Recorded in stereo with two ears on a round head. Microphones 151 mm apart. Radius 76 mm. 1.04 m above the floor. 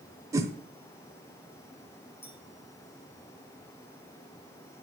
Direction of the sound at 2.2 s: 15° left (ahead or behind).